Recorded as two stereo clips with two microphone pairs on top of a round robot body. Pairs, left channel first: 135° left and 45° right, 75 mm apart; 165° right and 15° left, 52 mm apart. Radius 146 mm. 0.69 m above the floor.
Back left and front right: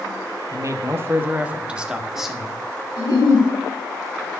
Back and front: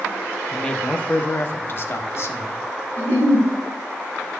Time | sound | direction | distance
0.5 | a man speaking | 80° right | 0.9 m
3.0 | a giggle | 145° left | 5.5 m